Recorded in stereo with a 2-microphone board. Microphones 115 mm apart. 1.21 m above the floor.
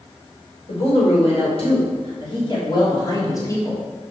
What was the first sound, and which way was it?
A woman speaking, 65° left (ahead or behind).